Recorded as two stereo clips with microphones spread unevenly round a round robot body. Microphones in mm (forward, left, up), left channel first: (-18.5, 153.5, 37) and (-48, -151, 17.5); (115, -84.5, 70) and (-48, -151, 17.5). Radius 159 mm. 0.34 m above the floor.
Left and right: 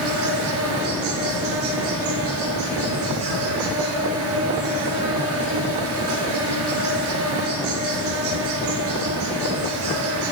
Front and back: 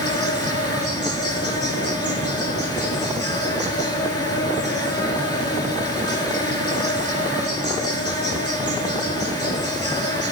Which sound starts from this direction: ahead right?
An insect, at 0.0 s.